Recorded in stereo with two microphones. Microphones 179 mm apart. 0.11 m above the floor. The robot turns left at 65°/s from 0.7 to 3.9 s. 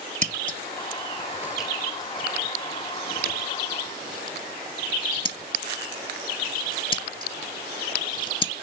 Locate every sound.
0.2 s scissors: 50° right (ahead or behind), 0.6 m; by 8.5 s 30° left (ahead or behind), 0.6 m